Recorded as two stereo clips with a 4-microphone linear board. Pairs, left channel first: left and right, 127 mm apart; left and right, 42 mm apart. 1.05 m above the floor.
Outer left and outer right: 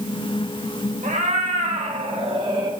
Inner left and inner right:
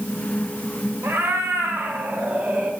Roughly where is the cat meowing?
Right.